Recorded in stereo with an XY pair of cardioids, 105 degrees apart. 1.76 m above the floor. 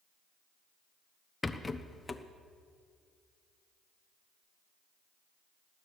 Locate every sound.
1.4 s a rattle: 20° left, 0.9 m